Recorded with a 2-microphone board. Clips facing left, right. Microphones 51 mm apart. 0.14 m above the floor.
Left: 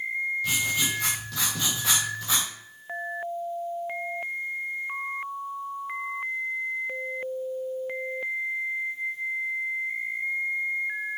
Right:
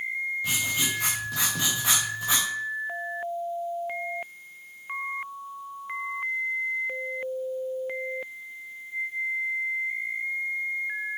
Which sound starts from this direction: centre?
Writing, at 0.4 s.